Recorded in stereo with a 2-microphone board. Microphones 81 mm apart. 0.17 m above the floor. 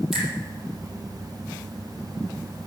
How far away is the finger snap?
About 5.5 m.